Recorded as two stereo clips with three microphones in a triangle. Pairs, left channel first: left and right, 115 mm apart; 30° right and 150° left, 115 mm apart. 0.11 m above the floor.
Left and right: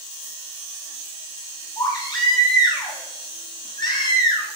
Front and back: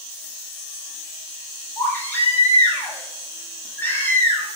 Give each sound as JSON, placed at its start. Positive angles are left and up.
{"t": 1.8, "sound": "a baby crying", "azimuth_deg": 40, "distance_m": 3.0}